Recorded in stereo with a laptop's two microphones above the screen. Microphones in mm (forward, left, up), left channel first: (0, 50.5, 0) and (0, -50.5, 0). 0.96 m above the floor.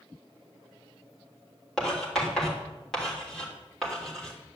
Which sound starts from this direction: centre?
Writing, at 1.8 s.